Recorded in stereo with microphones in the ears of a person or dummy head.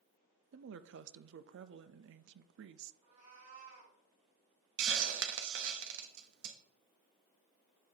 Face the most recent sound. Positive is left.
turn(degrees=-70)  # may be behind; listen again after turning